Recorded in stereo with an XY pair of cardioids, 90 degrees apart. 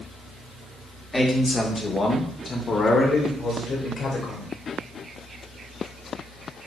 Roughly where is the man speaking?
Ahead.